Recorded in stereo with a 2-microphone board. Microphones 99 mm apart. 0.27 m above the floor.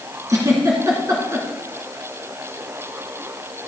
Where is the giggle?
30° right (ahead or behind), 2.5 m.